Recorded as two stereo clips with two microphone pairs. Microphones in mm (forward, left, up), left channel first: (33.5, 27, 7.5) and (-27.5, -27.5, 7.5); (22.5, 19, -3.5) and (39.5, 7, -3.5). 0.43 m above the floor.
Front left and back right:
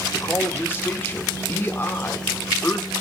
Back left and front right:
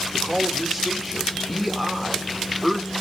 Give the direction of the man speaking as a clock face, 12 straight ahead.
10 o'clock.